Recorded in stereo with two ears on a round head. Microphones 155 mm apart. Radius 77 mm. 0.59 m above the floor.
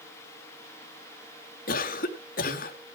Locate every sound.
1.7 s a cough: 50° left (ahead or behind), 1.9 m